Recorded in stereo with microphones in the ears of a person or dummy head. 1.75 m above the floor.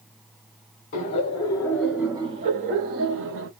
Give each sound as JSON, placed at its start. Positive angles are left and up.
{"t": 0.9, "sound": "laughter", "side_deg": 45, "distance_m": 0.9}